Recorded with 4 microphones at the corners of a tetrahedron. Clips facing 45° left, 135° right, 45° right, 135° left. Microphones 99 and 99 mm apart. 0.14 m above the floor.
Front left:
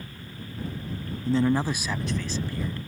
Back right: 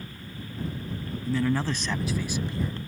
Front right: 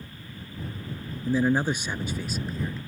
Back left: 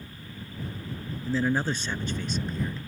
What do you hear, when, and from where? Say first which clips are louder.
1.2 s a man speaking: front left 3 dB, front right 3 dB; 15° left; by 2.8 s 130° right